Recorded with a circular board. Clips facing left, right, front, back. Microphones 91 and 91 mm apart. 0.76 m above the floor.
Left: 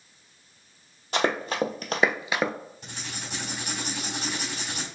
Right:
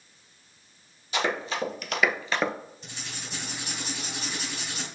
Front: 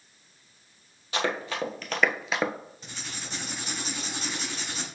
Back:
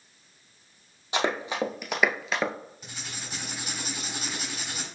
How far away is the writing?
About 2.5 m.